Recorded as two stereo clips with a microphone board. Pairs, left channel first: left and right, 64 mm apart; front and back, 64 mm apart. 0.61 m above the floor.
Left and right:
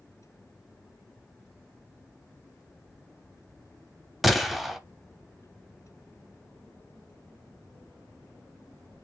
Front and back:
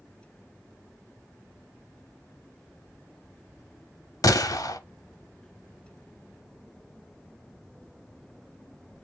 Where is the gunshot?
Straight ahead, 0.8 m.